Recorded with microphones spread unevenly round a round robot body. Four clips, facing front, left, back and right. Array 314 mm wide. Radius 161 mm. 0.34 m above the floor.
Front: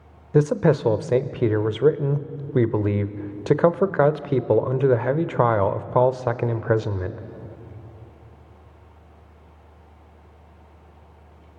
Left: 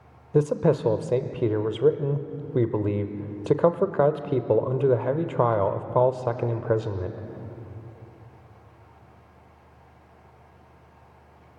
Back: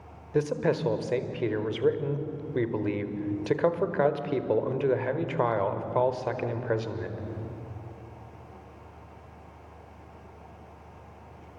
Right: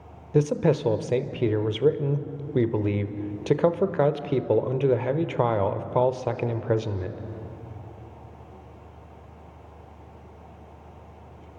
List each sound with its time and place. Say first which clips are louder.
0.3 s a man speaking: left 1 dB, front 7 dB; 15° left, 1.0 m